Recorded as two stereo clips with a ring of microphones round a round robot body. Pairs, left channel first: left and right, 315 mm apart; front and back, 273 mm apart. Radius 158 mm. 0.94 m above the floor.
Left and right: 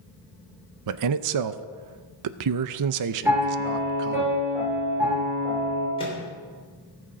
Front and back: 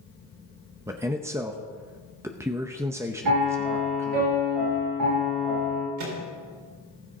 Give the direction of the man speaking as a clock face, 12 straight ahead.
3 o'clock.